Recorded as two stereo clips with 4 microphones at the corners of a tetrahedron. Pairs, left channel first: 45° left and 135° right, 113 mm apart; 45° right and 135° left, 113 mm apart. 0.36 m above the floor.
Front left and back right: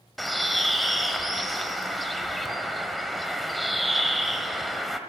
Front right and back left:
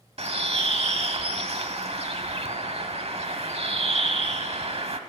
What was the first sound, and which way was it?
A bird, 135° left.